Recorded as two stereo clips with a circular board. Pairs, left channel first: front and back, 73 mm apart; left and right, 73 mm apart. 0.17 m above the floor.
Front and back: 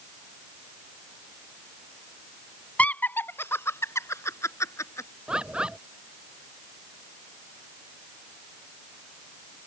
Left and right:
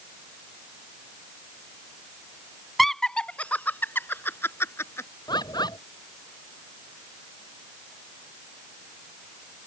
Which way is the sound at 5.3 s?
105° left.